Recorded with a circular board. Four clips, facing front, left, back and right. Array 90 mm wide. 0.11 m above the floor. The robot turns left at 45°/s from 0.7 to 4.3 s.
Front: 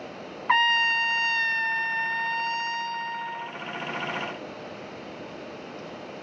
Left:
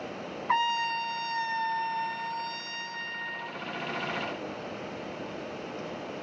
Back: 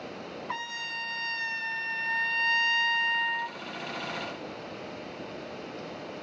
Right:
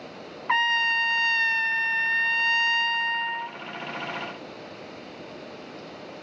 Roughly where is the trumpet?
Ahead right.